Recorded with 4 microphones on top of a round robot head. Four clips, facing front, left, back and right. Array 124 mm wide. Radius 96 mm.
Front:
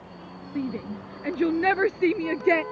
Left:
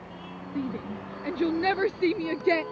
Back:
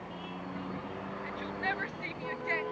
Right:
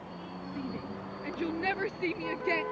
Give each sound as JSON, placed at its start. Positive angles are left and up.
{"t": 0.6, "sound": "a shout", "azimuth_deg": 20}